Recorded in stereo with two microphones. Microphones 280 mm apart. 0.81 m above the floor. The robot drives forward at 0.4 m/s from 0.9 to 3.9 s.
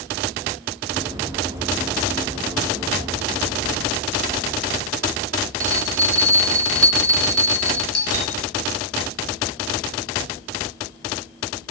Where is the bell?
50° right (ahead or behind), 1.8 m.